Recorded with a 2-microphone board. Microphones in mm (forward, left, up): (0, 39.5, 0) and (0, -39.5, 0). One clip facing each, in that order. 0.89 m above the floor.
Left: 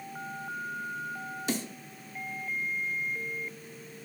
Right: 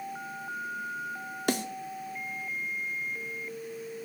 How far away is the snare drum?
About 0.7 m.